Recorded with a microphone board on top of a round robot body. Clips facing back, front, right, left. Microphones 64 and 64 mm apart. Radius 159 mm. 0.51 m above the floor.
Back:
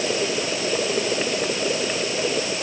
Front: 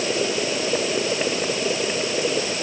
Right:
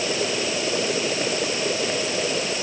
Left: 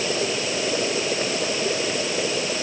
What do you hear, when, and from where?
Only background noise.